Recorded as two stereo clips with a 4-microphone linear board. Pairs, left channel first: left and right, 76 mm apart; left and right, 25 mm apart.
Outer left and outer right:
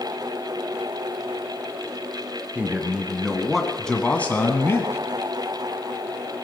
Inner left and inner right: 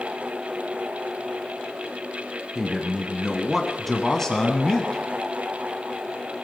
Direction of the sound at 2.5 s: 15° right (ahead or behind).